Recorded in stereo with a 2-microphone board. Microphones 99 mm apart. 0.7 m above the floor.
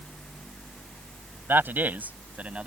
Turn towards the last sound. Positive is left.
turn(degrees=-10)  # may be behind; listen again after turning